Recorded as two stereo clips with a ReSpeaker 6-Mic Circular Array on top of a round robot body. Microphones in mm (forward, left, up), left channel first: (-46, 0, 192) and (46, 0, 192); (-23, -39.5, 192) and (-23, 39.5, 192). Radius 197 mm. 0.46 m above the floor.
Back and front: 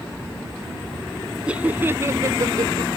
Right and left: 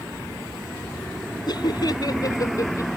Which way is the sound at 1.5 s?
75° right.